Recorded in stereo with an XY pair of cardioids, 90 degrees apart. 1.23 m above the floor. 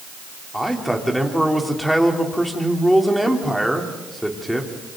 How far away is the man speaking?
About 3.5 m.